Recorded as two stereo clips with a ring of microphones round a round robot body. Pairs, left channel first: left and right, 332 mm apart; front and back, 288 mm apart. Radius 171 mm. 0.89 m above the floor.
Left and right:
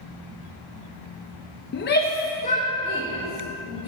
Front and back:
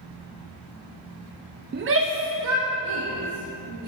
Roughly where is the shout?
Behind left.